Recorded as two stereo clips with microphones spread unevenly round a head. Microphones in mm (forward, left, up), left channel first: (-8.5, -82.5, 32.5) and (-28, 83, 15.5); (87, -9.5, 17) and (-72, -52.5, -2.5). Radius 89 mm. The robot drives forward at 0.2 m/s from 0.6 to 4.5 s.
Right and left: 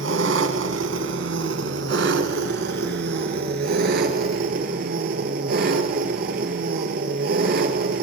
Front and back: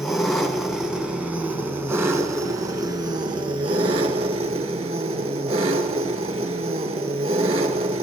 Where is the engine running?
100° left, 1.2 m; by 8.0 s 135° left, 1.6 m.